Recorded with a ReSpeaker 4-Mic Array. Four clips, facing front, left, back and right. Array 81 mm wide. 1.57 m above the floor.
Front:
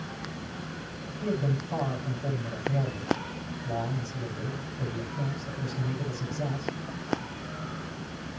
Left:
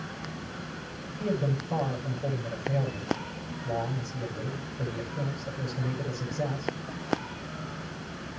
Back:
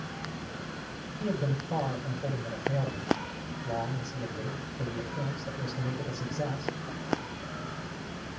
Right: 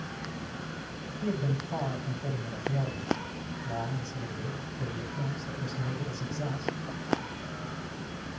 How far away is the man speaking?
About 9 m.